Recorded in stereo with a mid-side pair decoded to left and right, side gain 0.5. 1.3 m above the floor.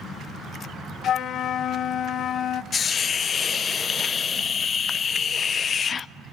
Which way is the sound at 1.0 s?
60° left.